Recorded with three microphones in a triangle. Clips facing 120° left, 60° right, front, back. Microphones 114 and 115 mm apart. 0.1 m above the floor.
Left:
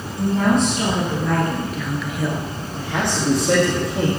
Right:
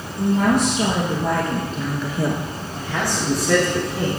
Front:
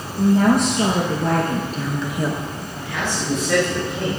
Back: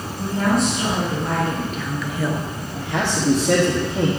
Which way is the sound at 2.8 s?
175° right.